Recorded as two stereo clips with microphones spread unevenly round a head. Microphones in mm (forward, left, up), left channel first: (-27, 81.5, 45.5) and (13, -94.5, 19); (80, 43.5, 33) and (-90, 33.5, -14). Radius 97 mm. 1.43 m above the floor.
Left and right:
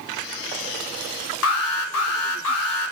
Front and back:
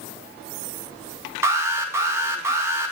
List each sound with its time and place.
1.4 s an alarm: 105° left, 2 m